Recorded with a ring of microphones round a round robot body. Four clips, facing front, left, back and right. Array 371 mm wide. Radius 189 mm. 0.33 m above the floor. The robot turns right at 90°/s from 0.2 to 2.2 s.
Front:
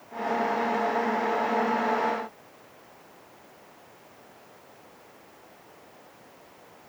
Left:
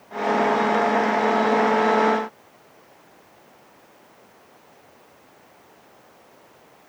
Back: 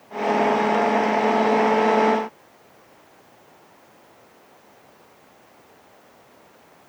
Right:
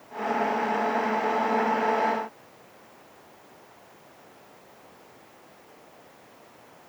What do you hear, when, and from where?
Only background noise.